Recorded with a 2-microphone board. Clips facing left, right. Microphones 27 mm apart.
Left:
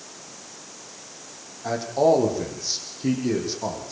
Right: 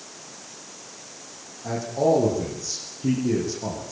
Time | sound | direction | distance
1.6 | a man speaking | 40° left (ahead or behind) | 8.5 m